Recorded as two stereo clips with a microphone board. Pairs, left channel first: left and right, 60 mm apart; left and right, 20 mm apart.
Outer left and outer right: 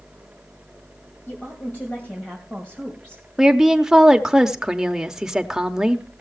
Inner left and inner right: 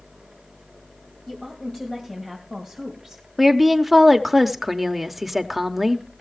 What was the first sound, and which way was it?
A woman speaking, 40° left (ahead or behind).